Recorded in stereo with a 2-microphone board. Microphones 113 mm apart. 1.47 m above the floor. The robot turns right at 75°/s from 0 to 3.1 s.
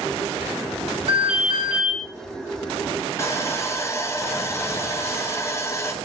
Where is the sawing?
25° left (ahead or behind), 0.8 m.